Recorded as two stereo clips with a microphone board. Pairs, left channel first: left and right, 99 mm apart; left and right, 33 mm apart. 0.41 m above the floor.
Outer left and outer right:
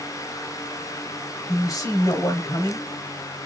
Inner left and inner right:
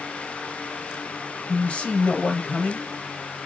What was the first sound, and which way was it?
A man speaking, 40° left (ahead or behind).